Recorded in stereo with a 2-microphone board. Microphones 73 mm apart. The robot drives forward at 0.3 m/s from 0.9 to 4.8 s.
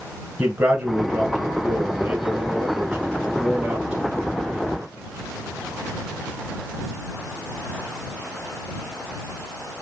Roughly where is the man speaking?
Centre.